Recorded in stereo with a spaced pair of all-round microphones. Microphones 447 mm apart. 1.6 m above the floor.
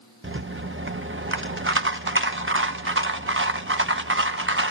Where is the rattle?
25° right (ahead or behind), 1.0 m.